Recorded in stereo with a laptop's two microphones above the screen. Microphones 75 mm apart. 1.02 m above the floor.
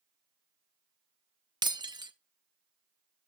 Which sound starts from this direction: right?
Breaking glass, at 1.6 s.